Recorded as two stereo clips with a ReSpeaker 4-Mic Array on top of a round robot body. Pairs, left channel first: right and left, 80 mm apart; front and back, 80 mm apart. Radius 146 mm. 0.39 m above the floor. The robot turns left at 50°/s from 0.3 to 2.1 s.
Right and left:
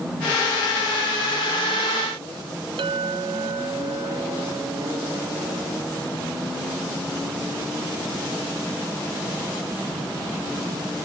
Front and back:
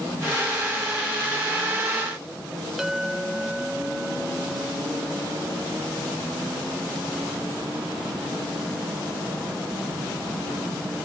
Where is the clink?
95° left.